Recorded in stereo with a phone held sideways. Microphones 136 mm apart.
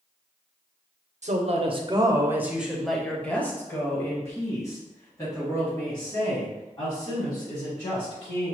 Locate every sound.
1.2 s a woman speaking: 60° right (ahead or behind), 0.7 m; by 8.6 s 35° left (ahead or behind), 4 m